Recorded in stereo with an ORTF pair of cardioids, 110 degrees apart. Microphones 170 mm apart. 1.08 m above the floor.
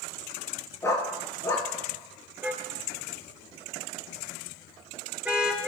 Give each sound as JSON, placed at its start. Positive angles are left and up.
{"t": 0.8, "sound": "a dog barking", "azimuth_deg": 15, "distance_m": 4.0}
{"t": 2.4, "sound": "a car horn", "azimuth_deg": -5, "distance_m": 6.5}